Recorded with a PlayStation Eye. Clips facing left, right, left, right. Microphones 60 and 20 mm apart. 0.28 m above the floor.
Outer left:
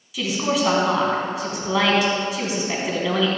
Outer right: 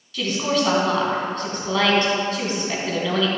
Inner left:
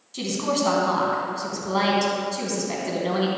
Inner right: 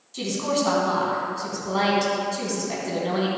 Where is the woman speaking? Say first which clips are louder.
Even, even; 10° left (ahead or behind), 2.5 m.